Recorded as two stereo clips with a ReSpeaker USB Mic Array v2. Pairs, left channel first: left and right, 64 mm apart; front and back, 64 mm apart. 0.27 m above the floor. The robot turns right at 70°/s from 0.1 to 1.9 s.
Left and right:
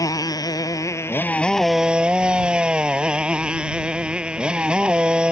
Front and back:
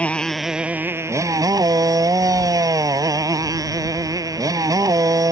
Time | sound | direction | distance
0.0 | a motorcycle | 70° left | ?